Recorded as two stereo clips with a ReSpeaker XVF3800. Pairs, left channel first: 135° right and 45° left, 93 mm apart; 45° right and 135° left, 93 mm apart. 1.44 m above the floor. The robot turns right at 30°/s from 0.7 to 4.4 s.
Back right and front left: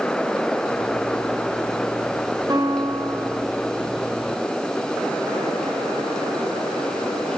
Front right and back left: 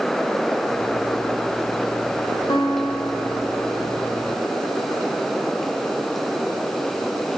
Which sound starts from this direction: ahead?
A guitar, at 2.5 s.